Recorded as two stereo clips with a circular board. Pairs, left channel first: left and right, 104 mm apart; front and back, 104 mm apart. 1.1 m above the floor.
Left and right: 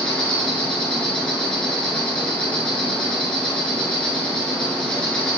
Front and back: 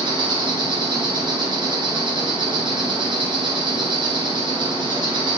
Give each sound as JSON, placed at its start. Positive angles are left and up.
{"t": 0.0, "sound": "an insect", "azimuth_deg": 170, "distance_m": 1.5}